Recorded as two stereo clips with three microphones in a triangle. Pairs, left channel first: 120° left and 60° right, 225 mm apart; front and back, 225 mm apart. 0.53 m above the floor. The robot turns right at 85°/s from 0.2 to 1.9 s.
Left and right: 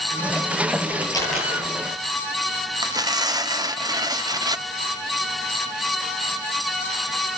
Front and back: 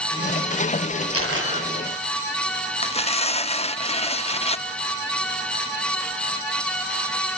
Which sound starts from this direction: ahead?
Tearing paper, at 2.8 s.